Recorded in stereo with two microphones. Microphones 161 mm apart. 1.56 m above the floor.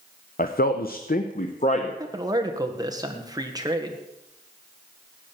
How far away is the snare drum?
I don't hear a snare drum.